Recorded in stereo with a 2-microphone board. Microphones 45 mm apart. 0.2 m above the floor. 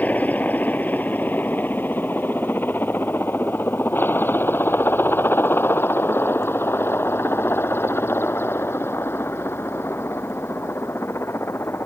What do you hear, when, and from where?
0.0 s a helicopter: 35° left (ahead or behind); by 11.9 s 65° left (ahead or behind)